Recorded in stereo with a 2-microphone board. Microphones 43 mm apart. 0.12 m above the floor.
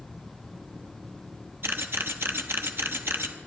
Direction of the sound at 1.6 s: 65° right (ahead or behind).